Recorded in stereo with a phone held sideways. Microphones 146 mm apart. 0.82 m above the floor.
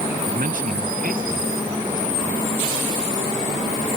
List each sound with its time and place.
0.3 s a man speaking: 70° right (ahead or behind)